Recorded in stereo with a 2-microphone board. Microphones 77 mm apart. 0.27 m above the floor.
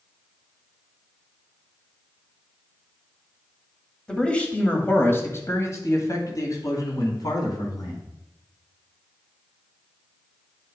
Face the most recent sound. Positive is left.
turn(degrees=60)  # may be behind; listen again after turning